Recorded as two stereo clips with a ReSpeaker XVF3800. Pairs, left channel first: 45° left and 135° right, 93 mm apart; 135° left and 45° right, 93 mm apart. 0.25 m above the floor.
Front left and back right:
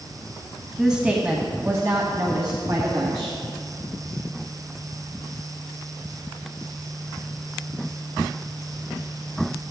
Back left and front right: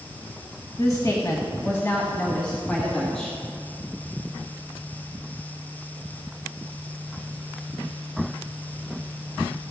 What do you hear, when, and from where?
0.8 s a woman speaking: 140° left, 1.5 m; by 3.4 s 140° right, 2.5 m